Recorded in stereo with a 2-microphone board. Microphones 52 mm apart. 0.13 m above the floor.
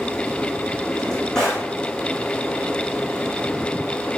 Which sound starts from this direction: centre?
A drawer, at 0.9 s.